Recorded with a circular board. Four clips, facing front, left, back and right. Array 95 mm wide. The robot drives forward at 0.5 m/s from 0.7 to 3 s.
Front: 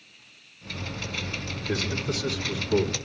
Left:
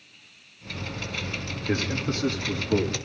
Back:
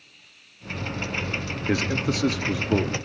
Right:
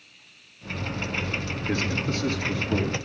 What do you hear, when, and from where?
1.7 s a man speaking: 170° left, 1.5 m; by 2.9 s 175° left, 2 m